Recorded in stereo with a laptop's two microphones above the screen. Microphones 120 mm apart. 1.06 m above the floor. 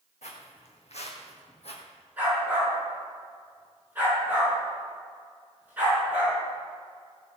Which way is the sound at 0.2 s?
70° left (ahead or behind).